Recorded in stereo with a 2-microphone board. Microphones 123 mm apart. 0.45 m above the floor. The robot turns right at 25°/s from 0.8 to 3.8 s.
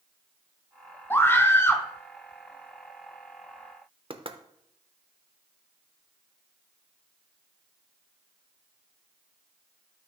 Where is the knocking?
45° right (ahead or behind), 0.7 m.